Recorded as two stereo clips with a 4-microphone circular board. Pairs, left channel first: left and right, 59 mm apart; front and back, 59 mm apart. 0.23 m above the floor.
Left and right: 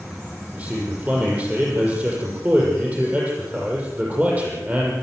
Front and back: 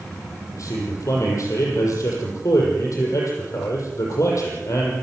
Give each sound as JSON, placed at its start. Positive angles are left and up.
{"t": 0.5, "sound": "a man speaking", "azimuth_deg": -25, "distance_m": 7.0}